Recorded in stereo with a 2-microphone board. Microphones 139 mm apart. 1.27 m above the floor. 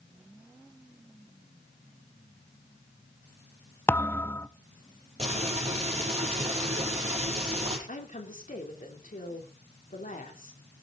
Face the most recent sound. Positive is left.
turn(degrees=70)  # may be behind; listen again after turning